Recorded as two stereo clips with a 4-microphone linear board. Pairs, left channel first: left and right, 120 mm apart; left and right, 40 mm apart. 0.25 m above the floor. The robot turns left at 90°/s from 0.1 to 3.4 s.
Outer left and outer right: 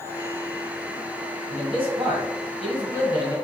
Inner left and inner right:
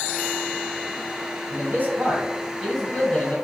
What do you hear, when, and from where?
1.5 s a man speaking: 80° right, 1.5 m; by 3.4 s 115° left, 1.5 m